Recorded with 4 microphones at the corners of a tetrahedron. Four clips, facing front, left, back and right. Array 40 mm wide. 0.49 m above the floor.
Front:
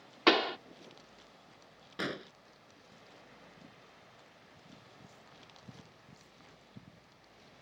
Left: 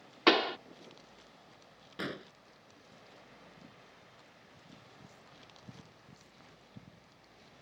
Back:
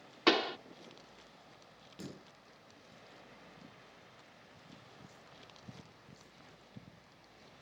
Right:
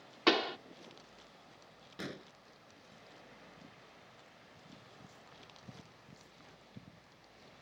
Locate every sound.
0.3 s a pop: 50° left
2.0 s an explosion: 20° left